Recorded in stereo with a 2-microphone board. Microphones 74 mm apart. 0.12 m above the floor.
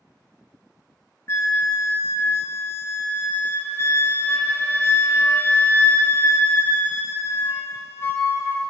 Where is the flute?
35° left (ahead or behind), 0.6 m.